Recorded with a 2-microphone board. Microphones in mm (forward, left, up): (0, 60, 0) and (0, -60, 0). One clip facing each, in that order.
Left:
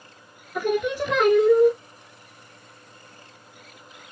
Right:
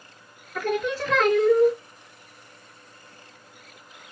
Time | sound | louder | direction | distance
0.6 | singing | left 2 dB | 15° left (ahead or behind) | 0.5 m